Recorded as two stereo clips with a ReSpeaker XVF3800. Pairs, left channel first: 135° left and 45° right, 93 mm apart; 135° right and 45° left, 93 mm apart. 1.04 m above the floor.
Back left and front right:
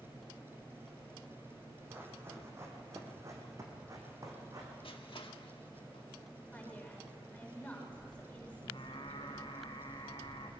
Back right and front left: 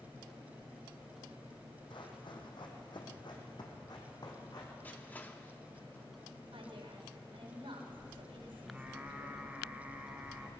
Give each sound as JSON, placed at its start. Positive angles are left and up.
{"t": 1.9, "sound": "running footsteps", "azimuth_deg": -110, "distance_m": 3.0}
{"t": 4.8, "sound": "crushing", "azimuth_deg": 155, "distance_m": 1.3}
{"t": 6.5, "sound": "a woman speaking", "azimuth_deg": 60, "distance_m": 4.5}
{"t": 8.6, "sound": "singing", "azimuth_deg": 120, "distance_m": 2.5}